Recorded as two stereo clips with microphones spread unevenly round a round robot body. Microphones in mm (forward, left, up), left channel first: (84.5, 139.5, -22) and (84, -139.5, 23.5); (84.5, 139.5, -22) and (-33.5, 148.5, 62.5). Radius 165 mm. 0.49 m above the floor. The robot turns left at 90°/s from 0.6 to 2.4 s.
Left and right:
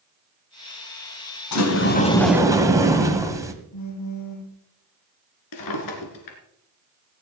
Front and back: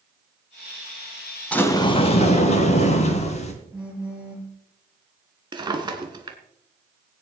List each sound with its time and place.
1.5 s a sliding door: 70° left, 1.6 m; by 3.5 s 10° right, 1.6 m
3.7 s a phone buzzing: 95° left, 6.5 m
5.5 s a drawer: 125° left, 1.9 m